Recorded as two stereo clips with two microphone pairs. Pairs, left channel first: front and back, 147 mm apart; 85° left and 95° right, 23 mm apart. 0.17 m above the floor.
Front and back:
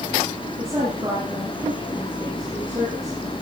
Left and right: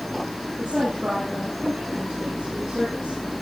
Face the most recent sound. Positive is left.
turn(degrees=-110)